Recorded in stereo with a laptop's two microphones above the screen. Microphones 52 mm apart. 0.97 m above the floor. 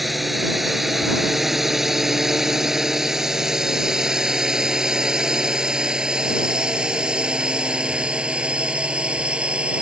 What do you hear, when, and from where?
0.0 s a drone: centre (ahead or behind); by 9.8 s 20° right (ahead or behind)